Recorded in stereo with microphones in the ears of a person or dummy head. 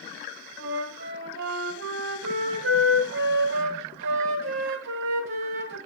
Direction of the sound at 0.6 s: 60° right (ahead or behind).